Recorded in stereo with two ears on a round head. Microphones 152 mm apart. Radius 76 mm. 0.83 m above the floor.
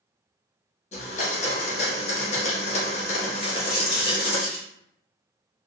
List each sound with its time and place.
0.9 s a blender: 40° left (ahead or behind), 0.9 m
3.4 s a dropped coin: 40° left (ahead or behind), 1.1 m